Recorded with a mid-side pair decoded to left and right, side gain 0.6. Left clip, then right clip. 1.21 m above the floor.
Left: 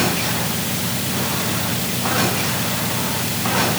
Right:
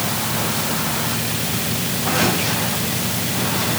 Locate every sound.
Only background noise.